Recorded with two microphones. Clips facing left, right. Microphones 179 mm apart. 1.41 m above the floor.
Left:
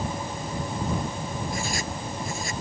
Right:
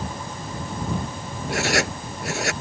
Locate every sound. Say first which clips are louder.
1.5 s writing: right 7 dB; 75° right (ahead or behind)